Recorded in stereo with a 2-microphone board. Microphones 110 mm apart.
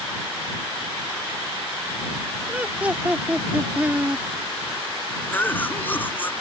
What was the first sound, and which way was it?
Laughter, 15° right (ahead or behind).